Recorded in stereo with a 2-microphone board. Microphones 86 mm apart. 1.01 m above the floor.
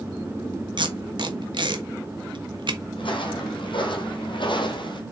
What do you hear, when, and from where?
0.8 s tape being pulled: 65° right (ahead or behind), 1.3 m
3.0 s footsteps: 70° left (ahead or behind), 3 m; by 5.0 s 65° left (ahead or behind), 2 m